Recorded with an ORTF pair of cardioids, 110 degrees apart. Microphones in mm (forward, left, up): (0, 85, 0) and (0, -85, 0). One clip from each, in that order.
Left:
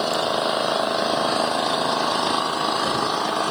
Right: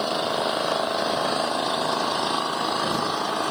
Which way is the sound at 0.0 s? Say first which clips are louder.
Left 3 dB; 10° left.